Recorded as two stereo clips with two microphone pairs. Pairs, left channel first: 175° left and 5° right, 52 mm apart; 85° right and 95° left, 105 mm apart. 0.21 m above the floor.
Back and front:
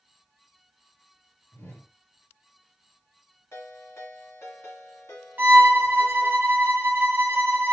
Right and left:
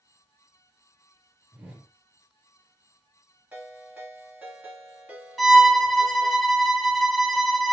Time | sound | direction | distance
1.5 | a whoosh | 175° left | 2.5 m
3.5 | a ringtone | 170° left | 2.0 m
5.4 | a violin | 10° left | 0.9 m